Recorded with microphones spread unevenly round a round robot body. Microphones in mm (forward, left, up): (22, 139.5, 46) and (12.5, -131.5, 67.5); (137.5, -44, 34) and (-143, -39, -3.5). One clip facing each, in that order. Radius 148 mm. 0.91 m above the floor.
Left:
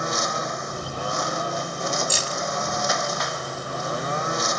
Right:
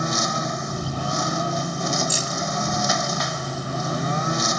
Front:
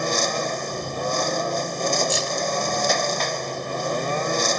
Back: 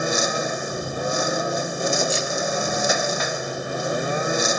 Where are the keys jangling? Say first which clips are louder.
Right 1 dB, back 1 dB; 55° left.